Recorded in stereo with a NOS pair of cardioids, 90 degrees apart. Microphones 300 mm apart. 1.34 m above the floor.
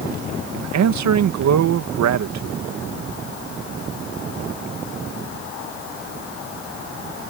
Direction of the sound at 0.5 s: 65° right.